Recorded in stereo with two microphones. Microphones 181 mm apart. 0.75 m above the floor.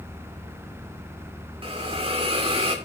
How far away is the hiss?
About 2.5 m.